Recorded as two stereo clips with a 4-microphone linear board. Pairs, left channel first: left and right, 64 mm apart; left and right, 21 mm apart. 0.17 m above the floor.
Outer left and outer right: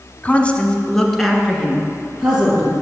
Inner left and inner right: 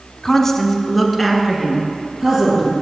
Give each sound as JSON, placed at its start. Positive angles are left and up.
{"t": 0.2, "sound": "a woman speaking", "side_deg": 25, "distance_m": 1.1}